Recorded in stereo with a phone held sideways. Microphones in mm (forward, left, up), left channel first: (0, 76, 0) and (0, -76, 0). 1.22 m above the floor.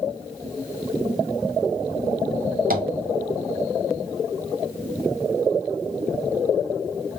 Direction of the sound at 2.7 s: 70° right (ahead or behind).